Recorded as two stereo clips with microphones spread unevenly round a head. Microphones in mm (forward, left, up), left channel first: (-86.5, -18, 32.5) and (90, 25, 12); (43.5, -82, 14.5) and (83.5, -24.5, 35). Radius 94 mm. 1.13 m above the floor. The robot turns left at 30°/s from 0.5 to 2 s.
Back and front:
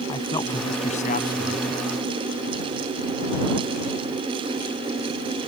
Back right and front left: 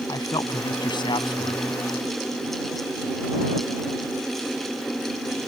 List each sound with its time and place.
0.1 s a man speaking: 100° right; by 1.6 s 130° right